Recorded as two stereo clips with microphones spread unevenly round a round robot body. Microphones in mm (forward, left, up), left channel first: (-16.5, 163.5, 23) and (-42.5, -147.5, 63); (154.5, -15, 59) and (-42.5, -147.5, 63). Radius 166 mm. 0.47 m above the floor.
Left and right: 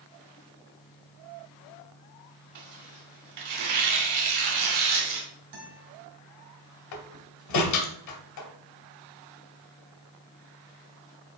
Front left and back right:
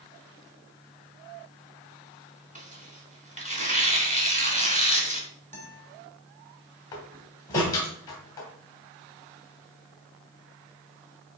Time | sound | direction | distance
2.5 | tearing paper | 85° right | 3 m
5.5 | a guitar | 90° right | 3 m
6.9 | a door slam | 115° left | 1.9 m